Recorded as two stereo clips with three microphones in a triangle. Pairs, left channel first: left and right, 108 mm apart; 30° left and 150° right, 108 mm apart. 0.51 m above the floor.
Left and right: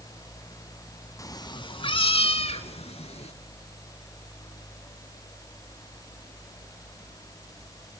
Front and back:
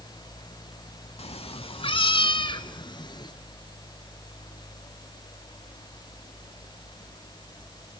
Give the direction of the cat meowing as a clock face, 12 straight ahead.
11 o'clock.